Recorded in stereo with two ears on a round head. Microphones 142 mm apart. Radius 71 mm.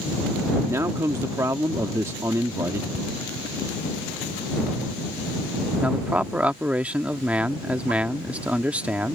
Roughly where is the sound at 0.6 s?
Centre.